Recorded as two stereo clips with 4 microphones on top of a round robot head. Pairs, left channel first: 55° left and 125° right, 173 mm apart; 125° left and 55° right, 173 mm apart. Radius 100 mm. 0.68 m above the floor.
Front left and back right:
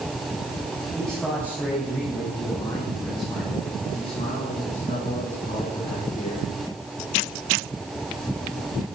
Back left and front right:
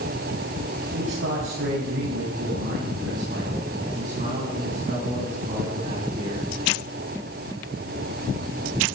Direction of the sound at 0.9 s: 35° right.